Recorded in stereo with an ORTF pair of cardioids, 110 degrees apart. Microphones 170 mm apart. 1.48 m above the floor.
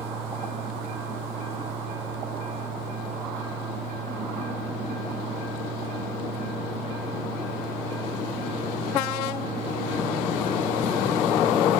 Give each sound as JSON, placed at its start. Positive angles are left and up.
{"t": 0.0, "sound": "a fan", "azimuth_deg": -40, "distance_m": 0.7}